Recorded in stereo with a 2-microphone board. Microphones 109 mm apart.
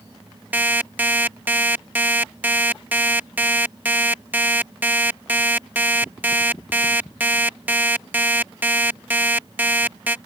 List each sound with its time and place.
0.5 s an alarm clock: 15° right (ahead or behind)